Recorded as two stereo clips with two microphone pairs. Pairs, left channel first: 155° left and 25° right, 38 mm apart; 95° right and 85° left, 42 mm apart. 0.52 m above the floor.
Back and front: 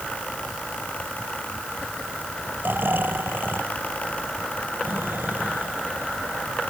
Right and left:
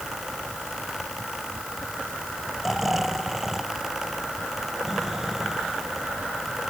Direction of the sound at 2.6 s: 5° left.